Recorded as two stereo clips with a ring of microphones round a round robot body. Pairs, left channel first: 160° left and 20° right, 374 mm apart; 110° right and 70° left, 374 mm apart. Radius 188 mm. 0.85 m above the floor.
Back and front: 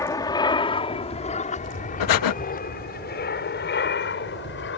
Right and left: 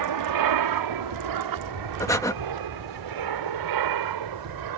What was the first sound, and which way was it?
An aircraft, 80° left.